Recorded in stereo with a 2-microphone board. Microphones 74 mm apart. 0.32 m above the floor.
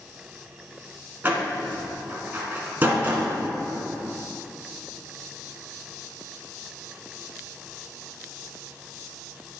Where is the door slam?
25° right (ahead or behind), 1.9 m.